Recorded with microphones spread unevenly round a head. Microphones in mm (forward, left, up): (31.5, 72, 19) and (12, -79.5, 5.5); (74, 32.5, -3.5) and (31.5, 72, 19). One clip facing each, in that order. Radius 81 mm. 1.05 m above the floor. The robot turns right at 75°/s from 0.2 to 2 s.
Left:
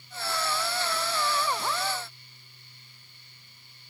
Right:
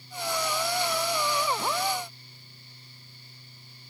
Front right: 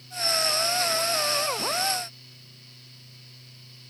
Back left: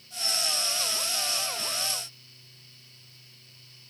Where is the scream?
I don't hear a scream.